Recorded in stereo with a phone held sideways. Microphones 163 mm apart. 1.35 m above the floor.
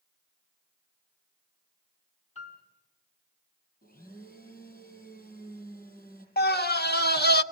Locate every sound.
2.4 s a piano: 40° left (ahead or behind), 5.5 m
3.8 s a blender: 65° left (ahead or behind), 7 m
6.4 s a scream: 80° left, 1.0 m